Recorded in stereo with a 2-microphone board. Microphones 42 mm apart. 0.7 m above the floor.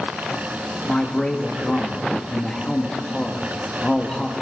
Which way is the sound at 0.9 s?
15° left (ahead or behind).